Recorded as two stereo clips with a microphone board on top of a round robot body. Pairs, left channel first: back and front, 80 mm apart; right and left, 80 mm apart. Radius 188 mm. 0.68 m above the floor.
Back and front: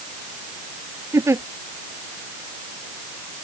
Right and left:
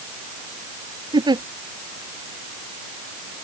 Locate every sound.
1.1 s a giggle: 55° left